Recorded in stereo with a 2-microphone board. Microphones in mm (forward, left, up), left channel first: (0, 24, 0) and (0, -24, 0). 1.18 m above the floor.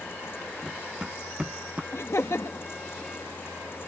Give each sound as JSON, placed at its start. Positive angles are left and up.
{"t": 0.6, "sound": "running footsteps", "side_deg": -10}
{"t": 1.9, "sound": "laughter", "side_deg": 70}